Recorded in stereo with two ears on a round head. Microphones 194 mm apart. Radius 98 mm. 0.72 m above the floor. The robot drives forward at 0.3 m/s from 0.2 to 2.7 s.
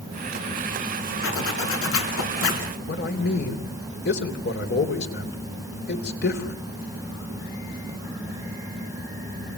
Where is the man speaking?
45° left (ahead or behind), 3.5 m.